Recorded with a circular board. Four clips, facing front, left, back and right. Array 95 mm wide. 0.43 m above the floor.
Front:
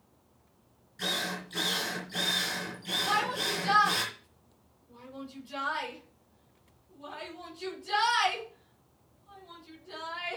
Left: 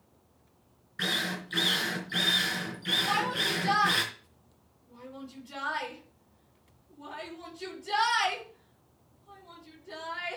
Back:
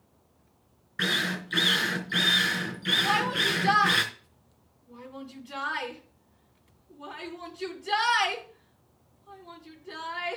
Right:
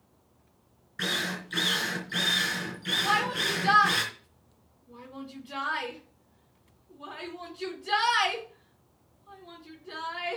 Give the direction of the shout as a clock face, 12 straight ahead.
4 o'clock.